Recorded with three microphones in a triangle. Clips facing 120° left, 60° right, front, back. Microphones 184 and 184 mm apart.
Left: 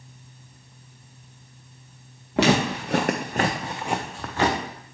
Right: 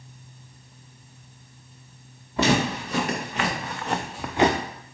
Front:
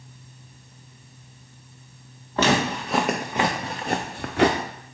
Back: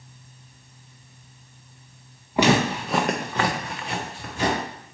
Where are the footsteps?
105° left, 1.1 m; by 4.6 s 5° left, 0.8 m.